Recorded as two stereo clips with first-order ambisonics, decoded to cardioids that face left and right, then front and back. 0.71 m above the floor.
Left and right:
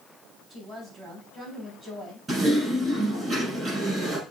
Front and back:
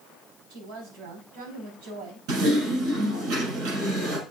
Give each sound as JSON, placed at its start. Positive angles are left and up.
{"t": 0.5, "sound": "a woman speaking", "azimuth_deg": -150, "distance_m": 4.0}
{"t": 2.3, "sound": "typing on a keyboard", "azimuth_deg": -160, "distance_m": 6.5}